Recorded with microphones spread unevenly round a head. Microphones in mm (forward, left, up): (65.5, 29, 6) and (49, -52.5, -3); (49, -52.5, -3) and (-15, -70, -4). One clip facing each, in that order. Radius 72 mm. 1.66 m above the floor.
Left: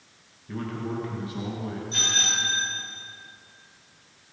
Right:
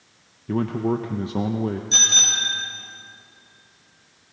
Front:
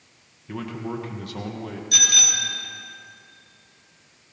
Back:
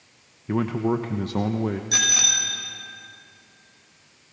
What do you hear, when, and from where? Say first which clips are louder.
0.5 s a man speaking: right 9 dB, back 8 dB; 115° right, 1.2 m
1.9 s a bicycle bell: right 1 dB, back 1 dB; 105° right, 6 m